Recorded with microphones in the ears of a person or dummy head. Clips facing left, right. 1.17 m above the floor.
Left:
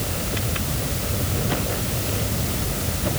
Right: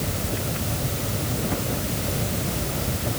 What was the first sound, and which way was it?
Only background noise.